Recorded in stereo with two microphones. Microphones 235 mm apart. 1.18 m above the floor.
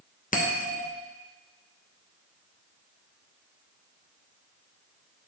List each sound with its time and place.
0.3 s a bell: 35° left (ahead or behind), 1.0 m